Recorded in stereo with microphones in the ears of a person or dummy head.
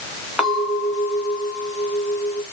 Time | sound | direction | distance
0.4 | a clink | 5° left (ahead or behind) | 3 m